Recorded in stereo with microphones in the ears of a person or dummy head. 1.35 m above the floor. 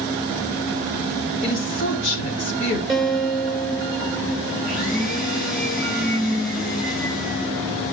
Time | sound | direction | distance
1.4 | a woman speaking | 60° left (ahead or behind) | 3 m
2.9 | a guitar | 5° right (ahead or behind) | 2 m
4.6 | a blender | 5° left (ahead or behind) | 5.5 m